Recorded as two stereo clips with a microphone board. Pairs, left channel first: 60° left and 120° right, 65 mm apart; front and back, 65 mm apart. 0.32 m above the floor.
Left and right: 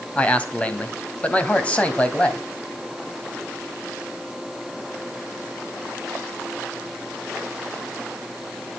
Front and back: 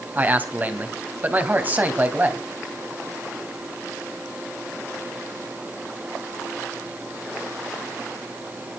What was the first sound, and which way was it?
A man speaking, 125° left.